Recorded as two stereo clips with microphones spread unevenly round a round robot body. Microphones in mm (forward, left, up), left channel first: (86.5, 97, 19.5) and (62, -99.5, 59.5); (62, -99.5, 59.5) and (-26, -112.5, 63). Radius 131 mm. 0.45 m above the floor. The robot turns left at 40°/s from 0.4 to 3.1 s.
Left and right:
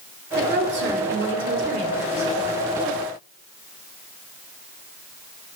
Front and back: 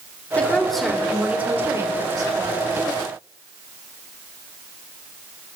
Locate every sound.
0.4 s a woman speaking: 65° right, 2 m; by 2.8 s 160° right, 2 m